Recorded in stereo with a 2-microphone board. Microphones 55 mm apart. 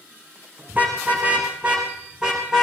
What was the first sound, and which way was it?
A car horn, 30° right (ahead or behind).